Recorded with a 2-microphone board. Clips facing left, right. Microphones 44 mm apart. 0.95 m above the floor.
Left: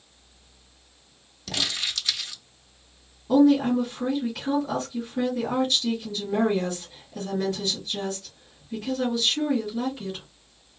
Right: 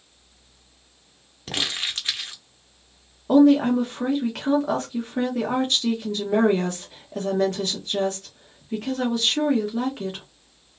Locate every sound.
1.5 s crumpling: 35° right (ahead or behind), 0.9 m
3.3 s a woman speaking: 55° right (ahead or behind), 1.3 m